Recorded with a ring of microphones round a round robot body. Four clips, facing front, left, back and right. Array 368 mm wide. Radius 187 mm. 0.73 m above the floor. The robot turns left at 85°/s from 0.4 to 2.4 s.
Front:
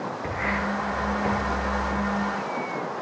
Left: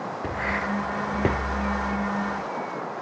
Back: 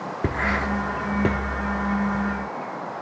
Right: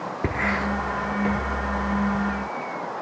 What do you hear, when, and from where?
0.2 s writing: 150° right, 1.2 m; by 1.4 s 130° left, 1.2 m